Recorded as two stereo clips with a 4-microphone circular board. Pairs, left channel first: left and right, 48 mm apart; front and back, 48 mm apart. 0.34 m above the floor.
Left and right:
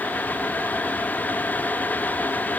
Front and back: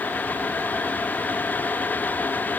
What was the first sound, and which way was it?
Only background noise.